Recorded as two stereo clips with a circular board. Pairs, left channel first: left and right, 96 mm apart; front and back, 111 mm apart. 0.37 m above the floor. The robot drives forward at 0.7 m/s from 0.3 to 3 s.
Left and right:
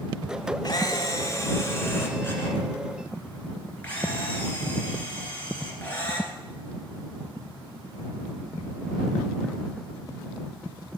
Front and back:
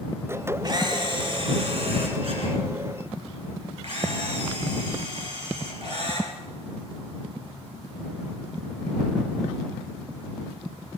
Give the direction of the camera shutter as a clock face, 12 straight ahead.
8 o'clock.